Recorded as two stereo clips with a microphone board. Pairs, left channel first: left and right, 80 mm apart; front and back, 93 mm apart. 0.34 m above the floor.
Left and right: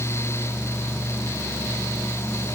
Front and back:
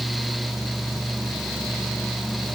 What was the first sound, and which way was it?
Only background noise.